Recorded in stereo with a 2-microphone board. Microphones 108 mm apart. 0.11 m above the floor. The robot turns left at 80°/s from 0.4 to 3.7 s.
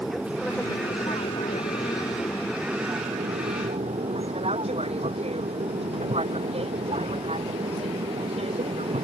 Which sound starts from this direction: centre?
An aircraft, at 0.0 s.